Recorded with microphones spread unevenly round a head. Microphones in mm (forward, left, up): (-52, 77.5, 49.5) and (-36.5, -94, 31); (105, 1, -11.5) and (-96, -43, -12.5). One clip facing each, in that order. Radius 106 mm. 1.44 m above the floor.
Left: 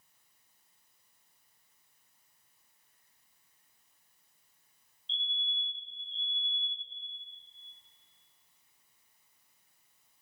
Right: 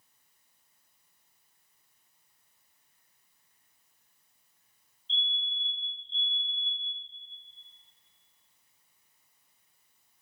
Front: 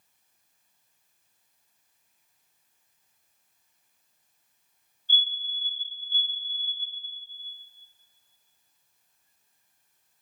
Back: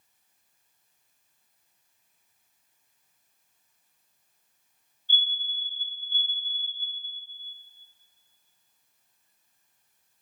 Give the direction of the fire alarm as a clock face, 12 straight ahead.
11 o'clock.